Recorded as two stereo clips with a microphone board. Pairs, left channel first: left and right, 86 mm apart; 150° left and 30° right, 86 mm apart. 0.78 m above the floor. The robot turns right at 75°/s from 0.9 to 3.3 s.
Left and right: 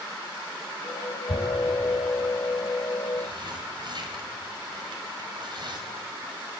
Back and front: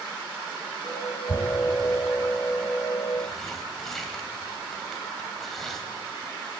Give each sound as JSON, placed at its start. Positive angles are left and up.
{"t": 1.3, "sound": "tearing paper", "azimuth_deg": 85, "distance_m": 4.5}